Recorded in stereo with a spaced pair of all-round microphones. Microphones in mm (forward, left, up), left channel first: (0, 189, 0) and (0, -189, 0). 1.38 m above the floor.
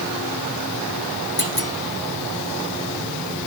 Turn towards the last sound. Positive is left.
turn(degrees=70)  # may be behind; listen again after turning